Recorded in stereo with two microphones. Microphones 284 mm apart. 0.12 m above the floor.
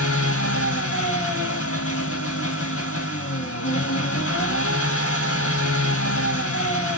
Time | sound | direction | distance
0.0 | an engine running | 50° left (ahead or behind) | 0.9 m